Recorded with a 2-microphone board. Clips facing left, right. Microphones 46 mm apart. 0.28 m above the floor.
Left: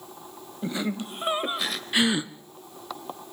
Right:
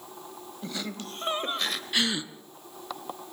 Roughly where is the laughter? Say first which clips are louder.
Left 7 dB; left.